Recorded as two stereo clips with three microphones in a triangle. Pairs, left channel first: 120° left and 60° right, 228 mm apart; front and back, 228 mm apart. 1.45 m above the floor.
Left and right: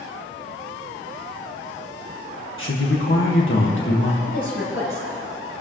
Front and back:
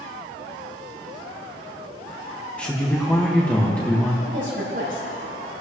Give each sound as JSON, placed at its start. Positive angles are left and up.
{"t": 2.6, "sound": "a man speaking", "azimuth_deg": 85, "distance_m": 1.8}
{"t": 4.2, "sound": "a woman speaking", "azimuth_deg": 135, "distance_m": 6.0}